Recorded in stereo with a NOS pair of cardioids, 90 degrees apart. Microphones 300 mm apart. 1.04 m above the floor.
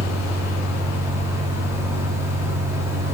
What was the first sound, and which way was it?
A fan, 10° right.